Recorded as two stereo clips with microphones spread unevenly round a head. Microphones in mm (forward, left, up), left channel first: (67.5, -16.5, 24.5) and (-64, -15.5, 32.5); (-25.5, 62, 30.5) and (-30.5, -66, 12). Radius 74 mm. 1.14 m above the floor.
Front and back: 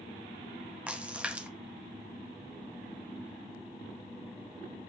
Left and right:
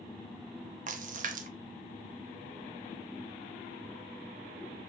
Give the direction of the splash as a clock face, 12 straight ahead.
3 o'clock.